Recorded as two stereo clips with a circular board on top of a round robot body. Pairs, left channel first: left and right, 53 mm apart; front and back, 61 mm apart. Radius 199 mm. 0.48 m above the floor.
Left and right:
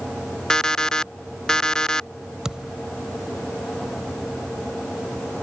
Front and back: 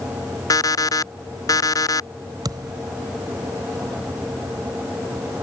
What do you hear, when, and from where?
0.5 s an alarm clock: 15° left
2.5 s a thud: 170° right